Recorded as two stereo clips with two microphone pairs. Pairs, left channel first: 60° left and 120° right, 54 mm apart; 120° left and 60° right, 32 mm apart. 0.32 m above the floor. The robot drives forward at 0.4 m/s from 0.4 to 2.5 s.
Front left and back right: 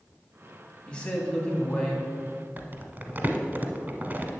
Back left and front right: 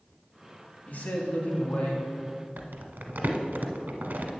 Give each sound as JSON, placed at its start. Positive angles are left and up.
{"t": 0.9, "sound": "a man speaking", "azimuth_deg": 130, "distance_m": 2.0}
{"t": 2.6, "sound": "crumpling", "azimuth_deg": -65, "distance_m": 0.9}